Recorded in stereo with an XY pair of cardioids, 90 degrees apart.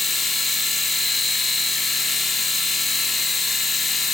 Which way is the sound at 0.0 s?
35° left.